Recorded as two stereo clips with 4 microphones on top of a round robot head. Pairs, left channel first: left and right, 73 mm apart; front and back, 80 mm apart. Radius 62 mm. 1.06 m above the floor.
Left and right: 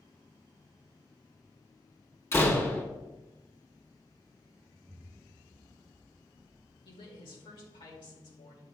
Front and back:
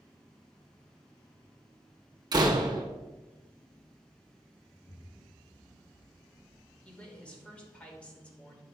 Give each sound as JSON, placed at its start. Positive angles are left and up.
{"t": 2.3, "sound": "a door slam", "azimuth_deg": 145, "distance_m": 1.2}
{"t": 4.8, "sound": "an explosion", "azimuth_deg": -40, "distance_m": 0.6}
{"t": 6.8, "sound": "a woman speaking", "azimuth_deg": 75, "distance_m": 2.0}